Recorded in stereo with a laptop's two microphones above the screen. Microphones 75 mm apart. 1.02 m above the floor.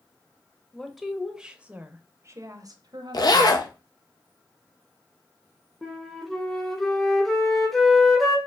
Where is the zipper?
55° left (ahead or behind), 0.6 m.